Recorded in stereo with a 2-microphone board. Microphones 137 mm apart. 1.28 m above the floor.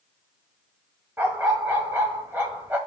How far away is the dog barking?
About 1.8 m.